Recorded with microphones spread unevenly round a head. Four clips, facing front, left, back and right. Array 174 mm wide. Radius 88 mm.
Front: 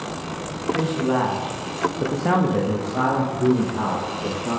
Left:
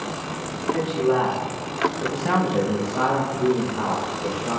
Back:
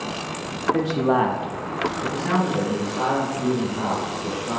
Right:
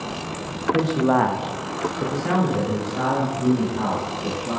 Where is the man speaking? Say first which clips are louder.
Right 2 dB, back 1 dB; 135° right, 1.5 m; by 4.6 s 15° left, 4 m.